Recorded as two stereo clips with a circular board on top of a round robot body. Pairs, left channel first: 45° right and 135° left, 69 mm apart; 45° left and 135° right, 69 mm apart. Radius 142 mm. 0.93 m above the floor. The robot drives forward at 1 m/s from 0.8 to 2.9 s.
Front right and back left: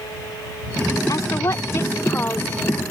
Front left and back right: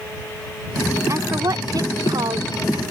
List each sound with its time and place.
1.1 s a woman speaking: 85° right; by 2.8 s 115° right